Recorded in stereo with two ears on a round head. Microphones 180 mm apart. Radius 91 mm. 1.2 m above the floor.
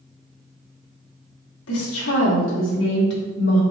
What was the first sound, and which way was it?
A woman speaking, 80° left.